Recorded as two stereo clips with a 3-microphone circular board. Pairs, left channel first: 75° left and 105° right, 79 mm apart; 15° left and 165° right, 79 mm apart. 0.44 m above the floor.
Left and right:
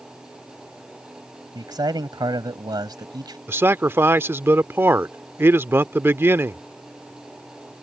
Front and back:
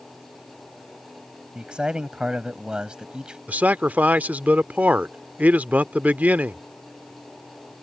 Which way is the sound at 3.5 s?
115° right.